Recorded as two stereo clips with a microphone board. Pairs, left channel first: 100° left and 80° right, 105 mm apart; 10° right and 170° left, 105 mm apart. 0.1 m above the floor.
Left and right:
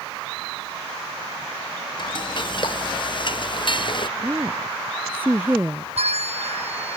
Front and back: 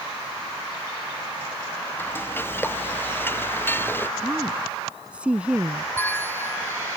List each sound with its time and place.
2.0 s frying: 60° left
4.2 s a woman speaking: 125° right
6.0 s a bell: 80° right